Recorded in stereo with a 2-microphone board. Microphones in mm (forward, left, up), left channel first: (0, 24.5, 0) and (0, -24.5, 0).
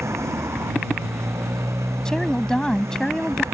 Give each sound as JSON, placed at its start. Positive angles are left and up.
{"t": 0.0, "sound": "a motorcycle", "side_deg": -75}
{"t": 2.0, "sound": "a woman speaking", "side_deg": 10}